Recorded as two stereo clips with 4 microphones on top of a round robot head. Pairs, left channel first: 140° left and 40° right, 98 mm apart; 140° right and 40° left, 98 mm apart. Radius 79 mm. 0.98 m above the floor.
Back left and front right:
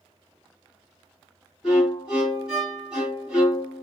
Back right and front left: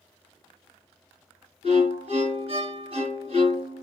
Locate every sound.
1.6 s a violin: 45° left, 1.7 m